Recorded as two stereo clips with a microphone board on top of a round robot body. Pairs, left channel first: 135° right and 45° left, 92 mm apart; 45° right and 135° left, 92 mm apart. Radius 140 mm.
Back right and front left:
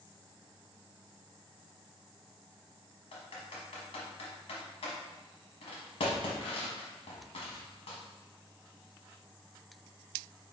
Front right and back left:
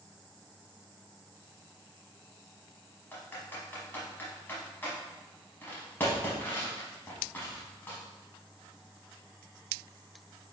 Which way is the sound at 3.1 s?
115° right.